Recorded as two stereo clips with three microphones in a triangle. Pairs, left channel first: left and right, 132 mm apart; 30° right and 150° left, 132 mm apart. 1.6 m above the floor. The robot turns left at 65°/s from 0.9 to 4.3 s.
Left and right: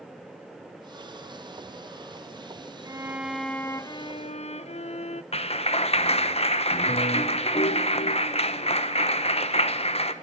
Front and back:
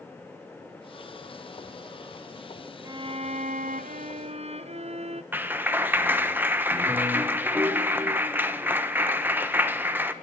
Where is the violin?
145° right, 0.5 m; by 5.2 s 120° left, 0.5 m.